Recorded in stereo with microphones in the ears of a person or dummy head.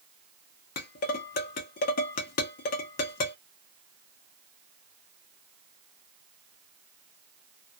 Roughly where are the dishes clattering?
Left.